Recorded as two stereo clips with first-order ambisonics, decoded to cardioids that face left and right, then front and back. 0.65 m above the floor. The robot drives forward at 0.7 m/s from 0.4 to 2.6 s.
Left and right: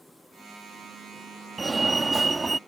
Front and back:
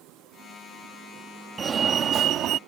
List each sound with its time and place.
1.6 s a fire alarm: 145° right; by 2.6 s 165° right